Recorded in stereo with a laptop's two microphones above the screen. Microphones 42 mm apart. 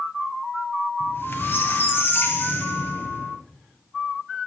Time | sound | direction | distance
1.0 | a squeak | 50° left (ahead or behind) | 1.4 m